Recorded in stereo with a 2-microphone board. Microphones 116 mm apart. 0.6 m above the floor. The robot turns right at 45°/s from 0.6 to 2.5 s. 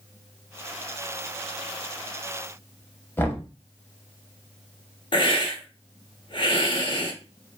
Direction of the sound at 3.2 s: 20° left (ahead or behind).